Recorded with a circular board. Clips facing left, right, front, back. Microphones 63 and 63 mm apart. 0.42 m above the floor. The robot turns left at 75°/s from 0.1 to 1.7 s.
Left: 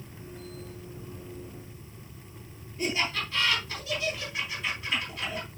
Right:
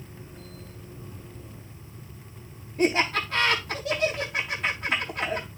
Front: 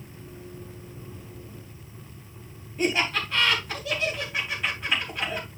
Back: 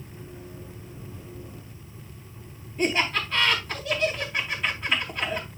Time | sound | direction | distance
2.8 | laughter | 85° right | 3.5 m